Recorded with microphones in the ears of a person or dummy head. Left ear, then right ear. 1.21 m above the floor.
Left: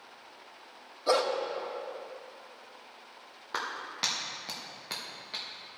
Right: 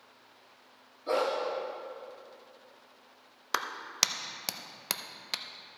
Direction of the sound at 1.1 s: 40° left (ahead or behind).